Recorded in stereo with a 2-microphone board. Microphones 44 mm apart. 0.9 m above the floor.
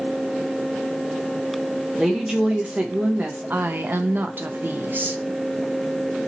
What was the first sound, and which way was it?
A woman speaking, 10° right (ahead or behind).